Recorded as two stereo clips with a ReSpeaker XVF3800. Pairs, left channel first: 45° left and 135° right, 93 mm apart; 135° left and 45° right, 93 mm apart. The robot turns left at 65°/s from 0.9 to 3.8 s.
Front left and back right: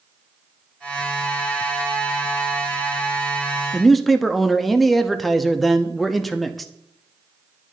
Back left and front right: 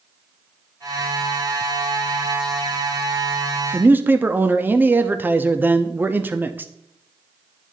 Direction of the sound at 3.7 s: 40° right.